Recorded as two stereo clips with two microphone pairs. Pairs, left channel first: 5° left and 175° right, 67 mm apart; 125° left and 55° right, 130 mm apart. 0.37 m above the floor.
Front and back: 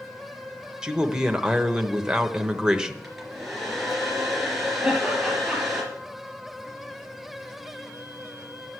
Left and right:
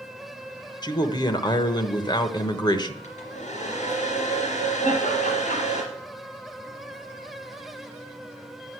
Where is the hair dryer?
95° left, 3.5 m.